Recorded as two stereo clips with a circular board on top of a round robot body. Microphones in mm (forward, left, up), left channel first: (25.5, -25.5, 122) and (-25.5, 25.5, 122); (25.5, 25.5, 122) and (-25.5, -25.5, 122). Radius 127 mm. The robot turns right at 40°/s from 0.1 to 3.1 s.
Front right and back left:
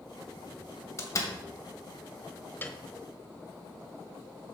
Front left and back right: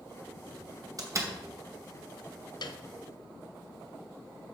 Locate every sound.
1.0 s a door slam: 95° right, 2.5 m; by 1.3 s 80° right, 2.5 m
2.6 s a piano: 20° left, 1.2 m; by 2.8 s 25° left, 1.2 m